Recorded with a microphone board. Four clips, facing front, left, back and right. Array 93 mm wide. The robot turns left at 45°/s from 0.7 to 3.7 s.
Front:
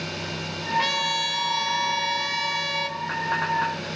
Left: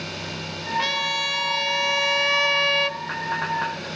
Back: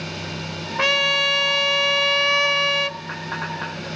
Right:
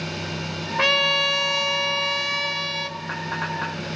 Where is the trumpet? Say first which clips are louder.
Right 5 dB, back 5 dB; 135° right, 0.8 m; by 3.0 s 125° left, 0.8 m.